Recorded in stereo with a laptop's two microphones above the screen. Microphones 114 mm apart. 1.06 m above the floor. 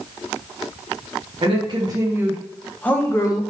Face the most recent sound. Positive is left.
turn(degrees=30)  # may be behind; listen again after turning